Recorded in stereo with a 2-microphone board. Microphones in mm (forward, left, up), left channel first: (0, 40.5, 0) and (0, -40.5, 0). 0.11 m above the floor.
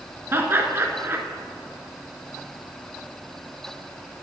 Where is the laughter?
30° right (ahead or behind), 1.2 m.